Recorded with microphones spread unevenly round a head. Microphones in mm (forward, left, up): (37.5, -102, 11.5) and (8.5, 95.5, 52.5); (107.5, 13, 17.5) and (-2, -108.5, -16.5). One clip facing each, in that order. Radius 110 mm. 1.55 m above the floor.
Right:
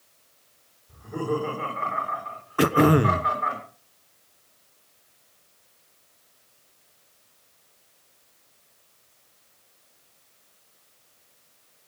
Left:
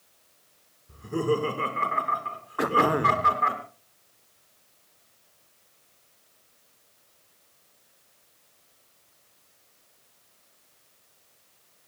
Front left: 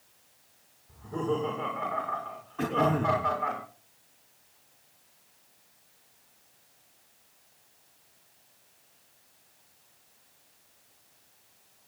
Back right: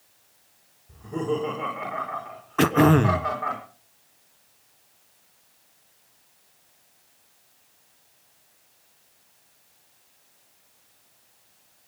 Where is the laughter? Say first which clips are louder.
Left 2 dB, back right 3 dB; 150° left, 5.5 m; by 3.6 s 135° left, 5.5 m.